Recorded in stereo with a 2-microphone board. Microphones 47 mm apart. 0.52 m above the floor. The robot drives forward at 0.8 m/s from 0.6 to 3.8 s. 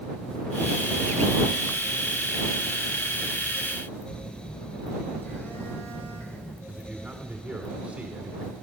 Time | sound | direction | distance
4.1 | a phone buzzing | 45° left (ahead or behind) | 1.8 m
6.7 | a man speaking | 30° right (ahead or behind) | 1.5 m